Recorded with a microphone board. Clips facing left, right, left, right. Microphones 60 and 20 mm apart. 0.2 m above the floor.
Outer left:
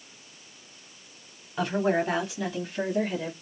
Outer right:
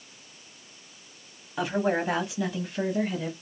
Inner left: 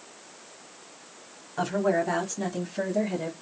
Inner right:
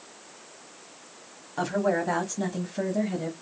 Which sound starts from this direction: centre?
A woman speaking, at 1.6 s.